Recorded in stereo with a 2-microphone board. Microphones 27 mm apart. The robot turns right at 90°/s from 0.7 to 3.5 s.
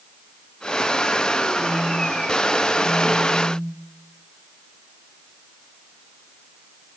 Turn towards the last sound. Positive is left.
turn(degrees=-145)